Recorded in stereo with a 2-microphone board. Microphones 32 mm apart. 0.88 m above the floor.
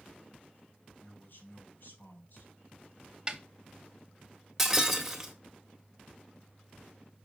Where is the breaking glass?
10° right (ahead or behind), 1.3 m.